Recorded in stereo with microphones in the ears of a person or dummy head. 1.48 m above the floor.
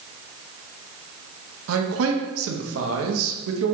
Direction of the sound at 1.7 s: 75° right (ahead or behind).